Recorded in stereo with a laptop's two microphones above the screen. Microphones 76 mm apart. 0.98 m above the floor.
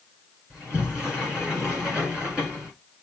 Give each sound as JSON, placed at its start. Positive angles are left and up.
{"t": 0.5, "sound": "a sliding door", "side_deg": -10, "distance_m": 5.0}